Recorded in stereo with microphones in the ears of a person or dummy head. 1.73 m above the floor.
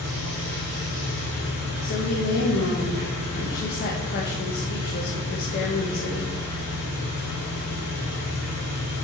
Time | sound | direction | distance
0.0 | an engine running | 75° left (ahead or behind) | 4 m
1.8 | a woman speaking | 50° left (ahead or behind) | 1.6 m